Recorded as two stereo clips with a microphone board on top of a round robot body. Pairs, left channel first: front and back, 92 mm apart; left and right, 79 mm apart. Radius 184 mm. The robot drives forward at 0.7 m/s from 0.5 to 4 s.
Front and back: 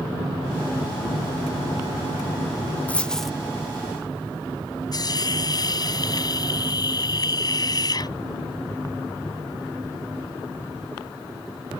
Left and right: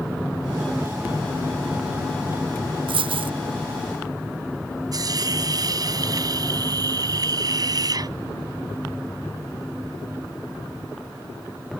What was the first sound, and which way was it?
A dropped coin, 75° right.